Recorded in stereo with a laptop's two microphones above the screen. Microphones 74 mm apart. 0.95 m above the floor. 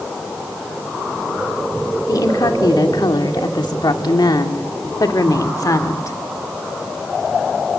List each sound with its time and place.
2.1 s a woman speaking: 60° left (ahead or behind), 2 m; by 6.2 s 50° left (ahead or behind), 2.5 m